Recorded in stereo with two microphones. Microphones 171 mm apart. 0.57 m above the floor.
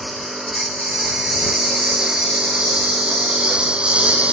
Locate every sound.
0.0 s a lawn mower: centre (ahead or behind); by 4.3 s 10° right (ahead or behind)